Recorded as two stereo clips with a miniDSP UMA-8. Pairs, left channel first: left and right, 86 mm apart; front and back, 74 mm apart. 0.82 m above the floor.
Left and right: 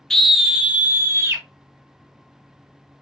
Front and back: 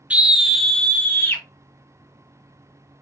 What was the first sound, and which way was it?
A scream, 160° left.